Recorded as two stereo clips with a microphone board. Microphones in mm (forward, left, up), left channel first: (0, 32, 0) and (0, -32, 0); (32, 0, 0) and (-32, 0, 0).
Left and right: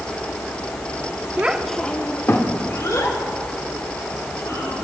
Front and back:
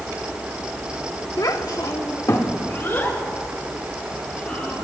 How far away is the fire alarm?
No fire alarm in this recording.